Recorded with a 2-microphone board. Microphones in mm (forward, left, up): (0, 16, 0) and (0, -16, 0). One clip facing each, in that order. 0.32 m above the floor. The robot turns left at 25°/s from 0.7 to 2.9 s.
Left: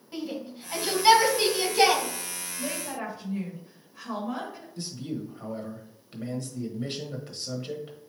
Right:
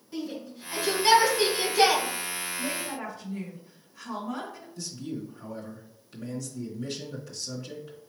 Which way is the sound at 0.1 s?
40° left (ahead or behind).